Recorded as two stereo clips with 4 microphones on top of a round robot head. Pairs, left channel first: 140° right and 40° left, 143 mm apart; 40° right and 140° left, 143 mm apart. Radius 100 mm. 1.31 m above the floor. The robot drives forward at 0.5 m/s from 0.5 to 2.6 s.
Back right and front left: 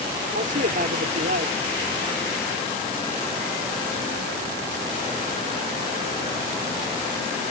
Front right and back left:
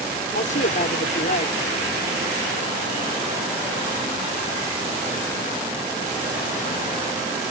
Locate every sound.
0.3 s a man speaking: 5° left